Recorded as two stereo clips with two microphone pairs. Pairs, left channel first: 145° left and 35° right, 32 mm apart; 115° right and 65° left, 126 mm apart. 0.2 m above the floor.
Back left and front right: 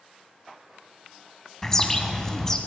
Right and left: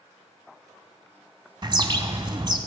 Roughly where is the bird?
Left.